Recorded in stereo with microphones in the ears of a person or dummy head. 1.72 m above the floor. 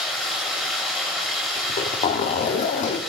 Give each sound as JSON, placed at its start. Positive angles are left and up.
{"t": 0.0, "sound": "running water", "side_deg": 5, "distance_m": 2.5}
{"t": 1.6, "sound": "a zipper", "side_deg": 40, "distance_m": 0.6}